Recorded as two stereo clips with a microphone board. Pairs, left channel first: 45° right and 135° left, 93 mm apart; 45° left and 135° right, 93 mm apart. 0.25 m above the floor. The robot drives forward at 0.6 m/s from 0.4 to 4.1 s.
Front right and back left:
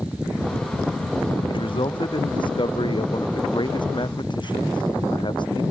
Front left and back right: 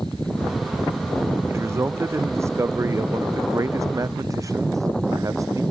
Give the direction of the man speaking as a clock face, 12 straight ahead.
2 o'clock.